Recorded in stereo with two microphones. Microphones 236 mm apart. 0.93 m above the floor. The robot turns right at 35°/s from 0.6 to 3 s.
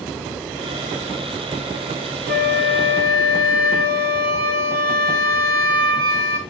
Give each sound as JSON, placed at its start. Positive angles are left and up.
{"t": 2.3, "sound": "a flute", "side_deg": -40, "distance_m": 1.2}